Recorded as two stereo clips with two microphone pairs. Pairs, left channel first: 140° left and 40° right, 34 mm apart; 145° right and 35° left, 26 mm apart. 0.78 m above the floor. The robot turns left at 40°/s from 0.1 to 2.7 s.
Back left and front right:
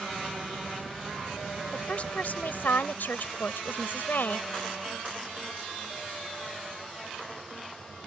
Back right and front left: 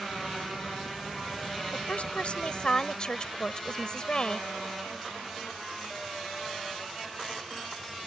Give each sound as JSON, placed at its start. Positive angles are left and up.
{"t": 1.7, "sound": "a woman speaking", "azimuth_deg": -165}